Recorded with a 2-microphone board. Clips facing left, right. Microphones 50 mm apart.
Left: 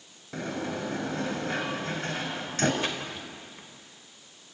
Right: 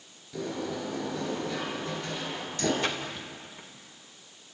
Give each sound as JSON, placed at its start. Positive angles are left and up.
{"t": 0.3, "sound": "a sliding door", "side_deg": 65, "distance_m": 3.0}
{"t": 2.8, "sound": "a splash", "side_deg": 15, "distance_m": 3.0}